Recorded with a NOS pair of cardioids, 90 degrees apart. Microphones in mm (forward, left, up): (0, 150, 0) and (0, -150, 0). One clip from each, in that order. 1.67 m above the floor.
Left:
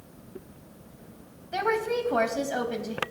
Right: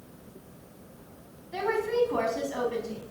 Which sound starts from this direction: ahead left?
A woman speaking, at 1.5 s.